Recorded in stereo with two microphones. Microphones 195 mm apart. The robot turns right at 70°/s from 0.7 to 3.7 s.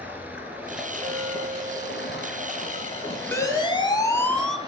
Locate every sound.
0.0 s running water: 10° right, 3.5 m; by 4.7 s 160° right, 3.5 m
1.0 s a clink: 20° right, 3 m; by 3.2 s 130° left, 3 m
3.3 s a siren: 10° left (ahead or behind), 3 m; by 4.6 s centre (ahead or behind), 1.9 m